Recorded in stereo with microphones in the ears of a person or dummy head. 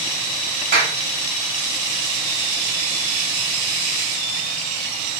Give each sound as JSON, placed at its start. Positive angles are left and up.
{"t": 0.7, "sound": "a clap", "side_deg": -50, "distance_m": 1.8}